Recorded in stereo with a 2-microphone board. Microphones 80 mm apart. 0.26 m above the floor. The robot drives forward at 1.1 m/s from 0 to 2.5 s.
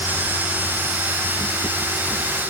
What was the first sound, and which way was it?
Only background noise.